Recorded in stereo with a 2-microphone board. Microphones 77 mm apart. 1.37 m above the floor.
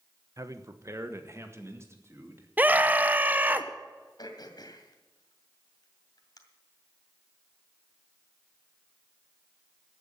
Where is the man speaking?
45° right (ahead or behind), 1.0 m; by 2.5 s 35° right (ahead or behind), 3 m.